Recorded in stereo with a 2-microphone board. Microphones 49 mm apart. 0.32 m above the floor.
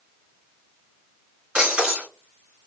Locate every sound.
1.6 s breaking glass: 20° right (ahead or behind), 2 m